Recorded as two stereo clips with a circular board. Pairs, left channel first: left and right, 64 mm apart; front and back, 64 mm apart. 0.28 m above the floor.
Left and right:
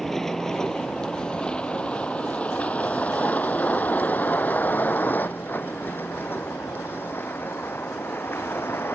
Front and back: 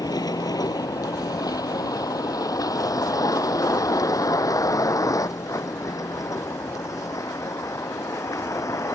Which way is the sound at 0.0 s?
5° left.